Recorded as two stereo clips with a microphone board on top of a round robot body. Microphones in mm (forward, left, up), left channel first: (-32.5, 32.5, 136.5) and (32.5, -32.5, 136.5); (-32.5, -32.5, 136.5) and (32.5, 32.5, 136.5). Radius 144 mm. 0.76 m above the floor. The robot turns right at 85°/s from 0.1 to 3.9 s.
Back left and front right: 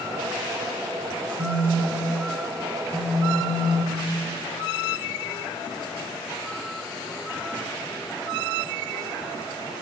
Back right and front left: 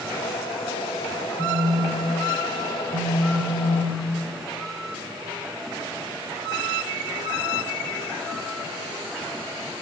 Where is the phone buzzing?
60° right, 1.2 m; by 4.2 s 155° left, 1.2 m.